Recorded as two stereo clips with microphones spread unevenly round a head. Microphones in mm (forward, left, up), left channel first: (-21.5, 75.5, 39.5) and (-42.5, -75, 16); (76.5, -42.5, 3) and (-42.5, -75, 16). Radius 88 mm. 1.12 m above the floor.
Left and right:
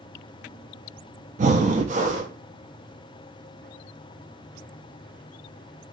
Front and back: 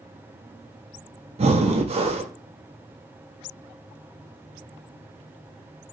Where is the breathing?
140° right, 0.8 m.